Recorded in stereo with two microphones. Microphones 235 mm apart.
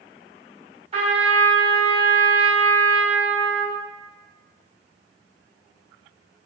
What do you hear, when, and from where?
0.9 s a trumpet: 25° right (ahead or behind), 1.8 m